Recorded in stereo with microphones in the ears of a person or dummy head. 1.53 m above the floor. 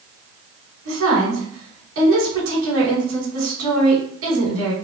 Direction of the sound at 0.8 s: 90° right.